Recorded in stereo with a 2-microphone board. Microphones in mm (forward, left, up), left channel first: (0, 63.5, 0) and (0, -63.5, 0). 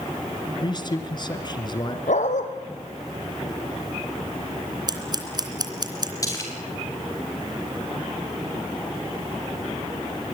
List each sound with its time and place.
0.6 s a man speaking: 35° left (ahead or behind), 2 m
2.1 s a dog barking: 75° left (ahead or behind), 3 m
4.9 s scissors: 35° right (ahead or behind), 2.5 m
6.2 s a splash: 25° left (ahead or behind), 7 m